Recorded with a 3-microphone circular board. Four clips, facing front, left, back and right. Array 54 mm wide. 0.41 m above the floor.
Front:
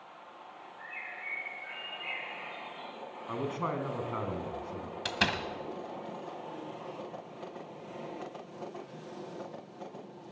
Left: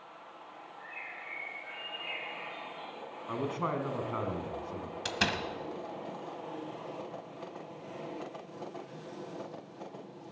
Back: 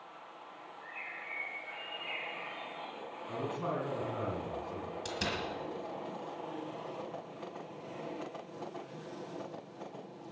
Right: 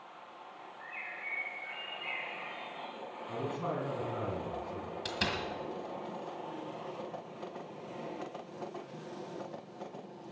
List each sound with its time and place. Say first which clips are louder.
0.8 s a bird: right 1 dB, front 2 dB; 5° left, 9 m
3.3 s a man speaking: left 3 dB, front 3 dB; 45° left, 3 m
5.0 s a door slam: left 3 dB, front 7 dB; 25° left, 1.5 m